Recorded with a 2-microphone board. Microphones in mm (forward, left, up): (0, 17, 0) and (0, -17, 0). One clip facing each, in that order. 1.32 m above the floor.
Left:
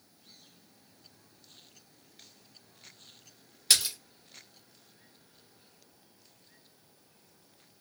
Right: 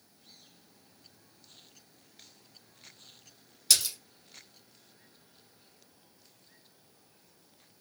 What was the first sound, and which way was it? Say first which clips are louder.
A splash: left 1 dB; 30° left (ahead or behind).